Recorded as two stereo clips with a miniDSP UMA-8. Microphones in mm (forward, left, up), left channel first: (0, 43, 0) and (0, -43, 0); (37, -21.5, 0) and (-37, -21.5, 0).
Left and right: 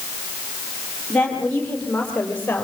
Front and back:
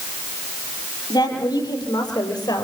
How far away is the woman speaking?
About 9 m.